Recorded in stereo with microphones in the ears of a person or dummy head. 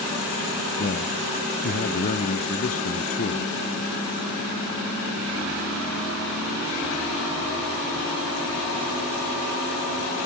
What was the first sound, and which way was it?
A man speaking, 40° left (ahead or behind).